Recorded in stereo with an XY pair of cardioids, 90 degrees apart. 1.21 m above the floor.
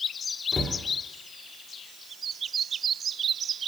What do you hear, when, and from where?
0.5 s a cupboard door: 35° left, 1.9 m